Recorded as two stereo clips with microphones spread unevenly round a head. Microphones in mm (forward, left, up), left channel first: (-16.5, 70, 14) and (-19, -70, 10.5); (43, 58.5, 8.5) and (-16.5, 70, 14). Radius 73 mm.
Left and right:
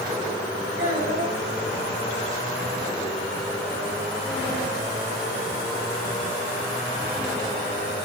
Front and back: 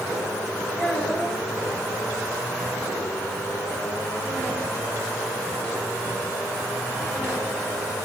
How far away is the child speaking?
About 5 m.